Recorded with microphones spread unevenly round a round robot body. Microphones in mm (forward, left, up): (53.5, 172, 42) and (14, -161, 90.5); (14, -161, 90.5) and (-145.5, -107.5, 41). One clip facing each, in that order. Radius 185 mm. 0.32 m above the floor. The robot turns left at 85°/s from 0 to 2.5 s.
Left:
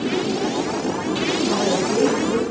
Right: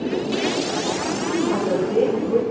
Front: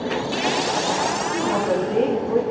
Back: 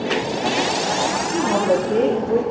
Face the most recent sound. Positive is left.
turn(degrees=45)